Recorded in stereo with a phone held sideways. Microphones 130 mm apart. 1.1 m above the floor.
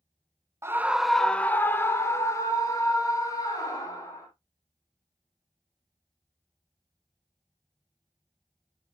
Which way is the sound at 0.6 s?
20° right (ahead or behind).